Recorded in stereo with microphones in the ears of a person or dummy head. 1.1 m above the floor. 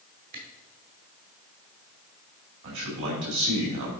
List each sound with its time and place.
0.3 s a camera shutter: 50° right (ahead or behind), 1.6 m
2.6 s a man speaking: 65° right (ahead or behind), 2.5 m